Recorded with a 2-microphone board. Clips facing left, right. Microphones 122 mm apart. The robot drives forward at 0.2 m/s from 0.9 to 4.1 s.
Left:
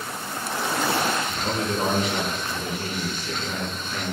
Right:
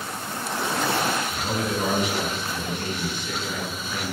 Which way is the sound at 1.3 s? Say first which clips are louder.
Even; 20° left (ahead or behind).